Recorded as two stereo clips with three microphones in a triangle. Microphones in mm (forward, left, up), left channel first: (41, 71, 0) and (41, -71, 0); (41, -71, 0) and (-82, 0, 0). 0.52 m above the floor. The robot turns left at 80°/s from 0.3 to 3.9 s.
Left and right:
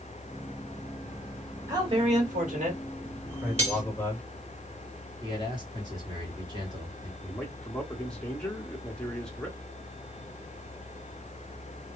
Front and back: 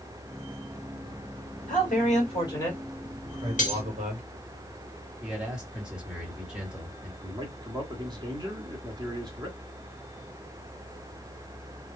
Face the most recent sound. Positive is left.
turn(degrees=165)